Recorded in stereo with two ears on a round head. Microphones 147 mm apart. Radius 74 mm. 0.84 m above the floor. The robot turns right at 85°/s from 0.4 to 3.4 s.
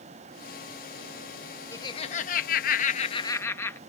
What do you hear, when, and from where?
1.7 s laughter: 20° left; by 3.8 s 160° left